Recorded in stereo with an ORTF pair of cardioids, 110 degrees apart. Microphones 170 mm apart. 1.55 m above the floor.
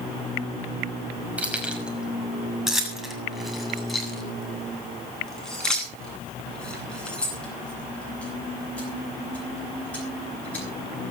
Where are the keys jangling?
10° right, 5.5 m; by 10.6 s 10° left, 14 m.